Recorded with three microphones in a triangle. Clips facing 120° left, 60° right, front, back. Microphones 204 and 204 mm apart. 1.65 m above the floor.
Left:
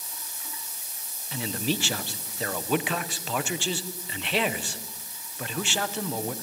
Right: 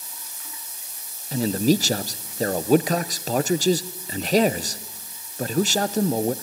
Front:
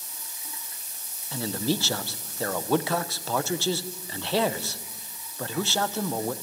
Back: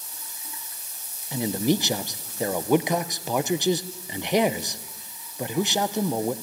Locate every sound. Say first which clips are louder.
1.3 s a man speaking: right 10 dB, back 4 dB; 110° right, 0.8 m